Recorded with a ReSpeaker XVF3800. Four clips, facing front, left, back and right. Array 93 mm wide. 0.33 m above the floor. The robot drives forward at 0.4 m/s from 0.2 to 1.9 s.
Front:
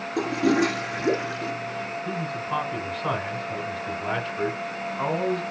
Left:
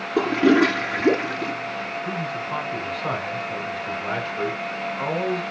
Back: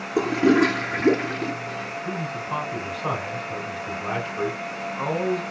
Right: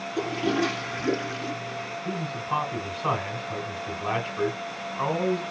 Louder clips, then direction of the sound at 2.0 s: Left 2 dB, back 1 dB; 115° right.